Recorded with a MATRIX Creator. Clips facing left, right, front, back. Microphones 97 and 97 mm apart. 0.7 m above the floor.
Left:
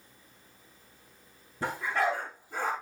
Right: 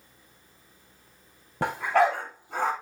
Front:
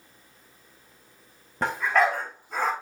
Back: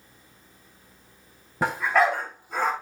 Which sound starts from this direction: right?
A dog barking, at 1.6 s.